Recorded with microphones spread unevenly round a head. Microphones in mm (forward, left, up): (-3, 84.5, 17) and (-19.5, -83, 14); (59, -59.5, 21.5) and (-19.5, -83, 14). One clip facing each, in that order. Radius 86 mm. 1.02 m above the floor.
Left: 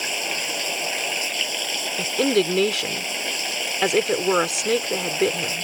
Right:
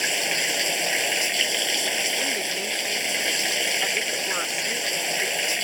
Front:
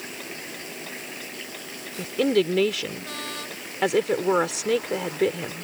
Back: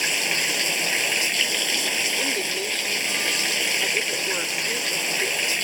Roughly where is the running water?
Behind.